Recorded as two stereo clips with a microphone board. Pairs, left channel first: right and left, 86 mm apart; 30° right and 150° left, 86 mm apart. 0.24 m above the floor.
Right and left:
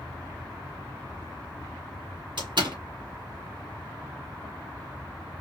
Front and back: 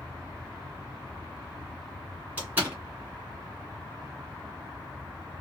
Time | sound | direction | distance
2.4 | a door slam | 85° left | 2.5 m